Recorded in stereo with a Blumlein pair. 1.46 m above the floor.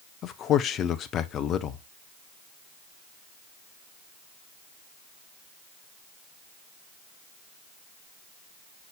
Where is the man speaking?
30° left, 0.8 m.